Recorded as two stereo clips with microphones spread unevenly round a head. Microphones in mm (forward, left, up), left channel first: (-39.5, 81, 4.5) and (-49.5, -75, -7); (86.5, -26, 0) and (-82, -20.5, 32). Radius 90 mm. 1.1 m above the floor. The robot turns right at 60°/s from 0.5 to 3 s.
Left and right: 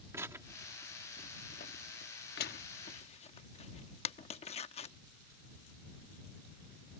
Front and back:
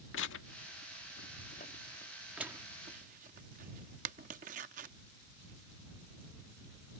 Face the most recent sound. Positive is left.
turn(degrees=135)